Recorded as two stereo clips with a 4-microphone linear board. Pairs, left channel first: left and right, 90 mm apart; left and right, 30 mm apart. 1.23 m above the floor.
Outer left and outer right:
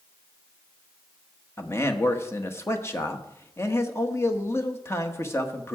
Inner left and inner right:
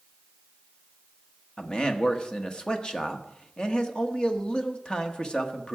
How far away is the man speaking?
About 1.4 m.